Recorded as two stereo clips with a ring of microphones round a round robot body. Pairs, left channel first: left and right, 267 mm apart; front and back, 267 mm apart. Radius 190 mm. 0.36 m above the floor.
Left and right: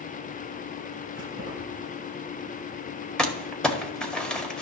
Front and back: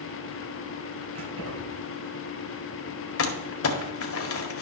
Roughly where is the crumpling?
Ahead.